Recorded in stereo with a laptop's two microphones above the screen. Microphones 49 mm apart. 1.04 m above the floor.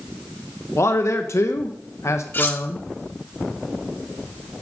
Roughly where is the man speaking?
Left.